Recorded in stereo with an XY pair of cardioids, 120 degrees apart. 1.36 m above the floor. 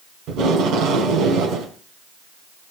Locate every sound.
0.3 s tape being pulled: 70° right, 4.5 m